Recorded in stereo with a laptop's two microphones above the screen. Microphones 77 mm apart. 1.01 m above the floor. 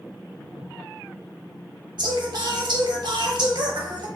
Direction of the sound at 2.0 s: 70° right (ahead or behind).